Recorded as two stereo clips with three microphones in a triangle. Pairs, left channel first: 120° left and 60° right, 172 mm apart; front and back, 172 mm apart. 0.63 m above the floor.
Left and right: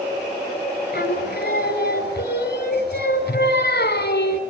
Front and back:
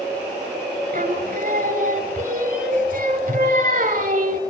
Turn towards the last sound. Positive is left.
turn(degrees=140)